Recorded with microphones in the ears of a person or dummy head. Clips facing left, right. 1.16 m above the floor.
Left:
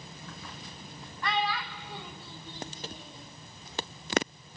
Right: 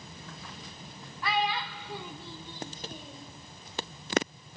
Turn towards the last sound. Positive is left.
turn(degrees=-65)  # may be behind; listen again after turning